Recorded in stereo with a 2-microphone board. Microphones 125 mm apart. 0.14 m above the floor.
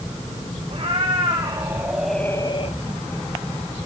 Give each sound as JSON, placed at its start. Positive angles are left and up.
{"t": 0.7, "sound": "a cat meowing", "side_deg": -45, "distance_m": 3.0}